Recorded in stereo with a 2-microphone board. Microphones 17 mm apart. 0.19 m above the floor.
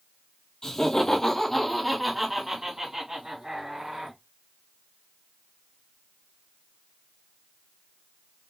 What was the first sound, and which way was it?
Laughter, 40° left (ahead or behind).